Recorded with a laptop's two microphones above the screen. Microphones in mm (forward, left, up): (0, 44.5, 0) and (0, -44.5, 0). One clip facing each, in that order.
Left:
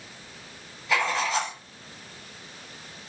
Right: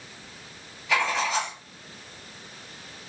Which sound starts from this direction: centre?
Writing, at 0.9 s.